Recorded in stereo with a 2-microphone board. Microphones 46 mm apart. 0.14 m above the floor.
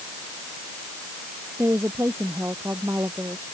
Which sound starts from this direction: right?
A woman speaking, at 1.6 s.